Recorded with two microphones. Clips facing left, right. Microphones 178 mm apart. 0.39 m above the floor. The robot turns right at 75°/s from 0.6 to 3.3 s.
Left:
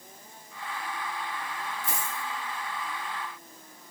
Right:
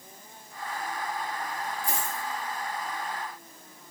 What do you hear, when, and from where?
1.8 s a dropped coin: 20° left (ahead or behind), 1.9 m; by 2.2 s 50° left (ahead or behind), 1.9 m